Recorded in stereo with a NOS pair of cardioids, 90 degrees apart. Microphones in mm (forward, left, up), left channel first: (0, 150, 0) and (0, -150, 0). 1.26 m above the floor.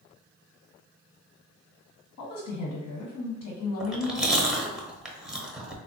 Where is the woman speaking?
70° left, 1.3 m.